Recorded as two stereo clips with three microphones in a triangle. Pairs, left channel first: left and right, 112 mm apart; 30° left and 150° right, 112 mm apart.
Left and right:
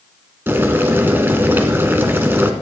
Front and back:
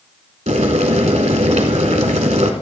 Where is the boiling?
160° right, 1.3 m.